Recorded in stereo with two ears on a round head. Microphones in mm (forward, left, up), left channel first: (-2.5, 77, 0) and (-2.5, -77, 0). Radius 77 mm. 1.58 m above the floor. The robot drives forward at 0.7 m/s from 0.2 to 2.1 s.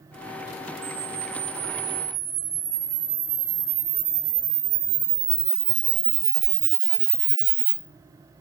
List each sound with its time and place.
0.8 s a camera shutter: 70° right (ahead or behind), 2 m; by 7.8 s 65° right (ahead or behind), 2.5 m